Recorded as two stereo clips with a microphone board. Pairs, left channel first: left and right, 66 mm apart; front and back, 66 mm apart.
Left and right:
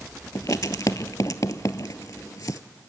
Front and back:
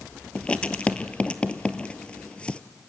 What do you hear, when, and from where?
0.3 s writing: 70° left, 0.8 m